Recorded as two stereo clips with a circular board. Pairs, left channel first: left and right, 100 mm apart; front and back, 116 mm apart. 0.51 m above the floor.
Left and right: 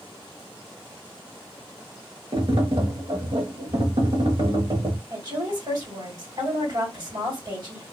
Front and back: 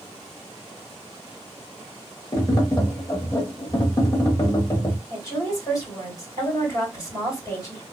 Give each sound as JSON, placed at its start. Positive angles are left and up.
{"t": 2.3, "sound": "tapping", "azimuth_deg": -55, "distance_m": 0.9}
{"t": 5.1, "sound": "a woman speaking", "azimuth_deg": -50, "distance_m": 2.0}